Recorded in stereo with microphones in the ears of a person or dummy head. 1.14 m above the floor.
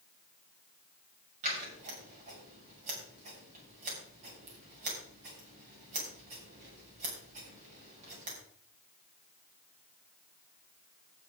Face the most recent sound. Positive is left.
turn(degrees=-40)  # may be behind; listen again after turning